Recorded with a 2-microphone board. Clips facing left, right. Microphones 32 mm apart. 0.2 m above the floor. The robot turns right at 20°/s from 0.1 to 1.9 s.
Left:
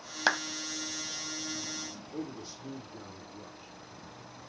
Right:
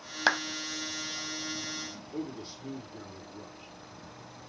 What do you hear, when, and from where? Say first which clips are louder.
0.3 s a clap: right 2 dB; 5° right (ahead or behind), 0.8 m
2.1 s a man speaking: right 2 dB; 30° right (ahead or behind), 4 m